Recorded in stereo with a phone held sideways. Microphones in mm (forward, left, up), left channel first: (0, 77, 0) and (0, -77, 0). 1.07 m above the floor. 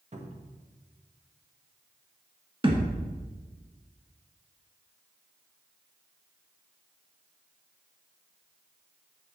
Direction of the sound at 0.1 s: 50° right (ahead or behind).